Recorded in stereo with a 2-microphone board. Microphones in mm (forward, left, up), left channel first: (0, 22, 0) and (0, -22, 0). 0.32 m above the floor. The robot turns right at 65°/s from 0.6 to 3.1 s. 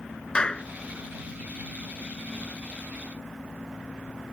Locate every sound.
0.3 s a clap: 20° left (ahead or behind); by 0.7 s 25° left (ahead or behind)